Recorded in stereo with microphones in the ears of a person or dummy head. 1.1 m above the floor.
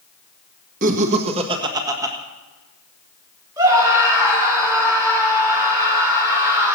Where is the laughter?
45° right (ahead or behind), 1.7 m; by 2.1 s 15° right (ahead or behind), 1.7 m.